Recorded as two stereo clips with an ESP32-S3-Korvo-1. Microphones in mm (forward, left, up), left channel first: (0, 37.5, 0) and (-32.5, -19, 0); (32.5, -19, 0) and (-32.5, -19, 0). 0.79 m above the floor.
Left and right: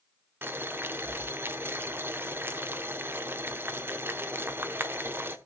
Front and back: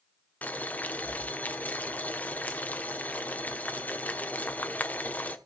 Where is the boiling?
65° right, 1.1 m.